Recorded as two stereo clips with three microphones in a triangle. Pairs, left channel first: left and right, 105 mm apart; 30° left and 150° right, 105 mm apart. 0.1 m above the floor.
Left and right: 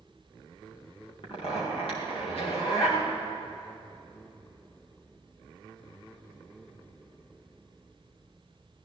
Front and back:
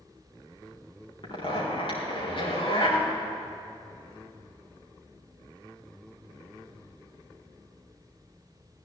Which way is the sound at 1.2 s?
65° left.